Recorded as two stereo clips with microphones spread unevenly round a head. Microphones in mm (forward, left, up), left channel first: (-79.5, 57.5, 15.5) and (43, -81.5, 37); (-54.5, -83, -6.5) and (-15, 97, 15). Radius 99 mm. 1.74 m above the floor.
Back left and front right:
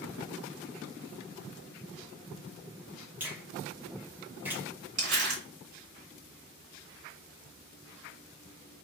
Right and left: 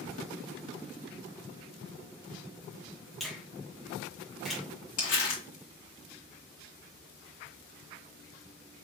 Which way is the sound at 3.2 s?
5° left.